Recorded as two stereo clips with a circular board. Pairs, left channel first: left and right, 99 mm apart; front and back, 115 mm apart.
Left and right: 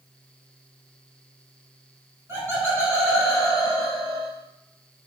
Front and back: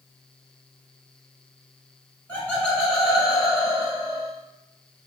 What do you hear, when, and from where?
2.3 s laughter: 60° right, 1.8 m; by 4.3 s 155° right, 1.9 m